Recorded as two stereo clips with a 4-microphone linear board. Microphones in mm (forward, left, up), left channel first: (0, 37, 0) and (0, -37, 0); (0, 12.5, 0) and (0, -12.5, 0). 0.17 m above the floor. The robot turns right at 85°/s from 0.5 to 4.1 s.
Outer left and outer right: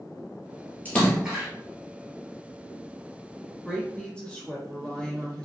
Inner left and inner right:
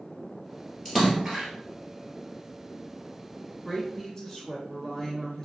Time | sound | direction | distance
0.8 | a splash | 155° left | 1.2 m
3.6 | a woman speaking | centre (ahead or behind) | 1.0 m